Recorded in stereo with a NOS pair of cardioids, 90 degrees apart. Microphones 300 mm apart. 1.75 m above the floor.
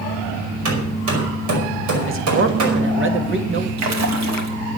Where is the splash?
60° right, 3 m.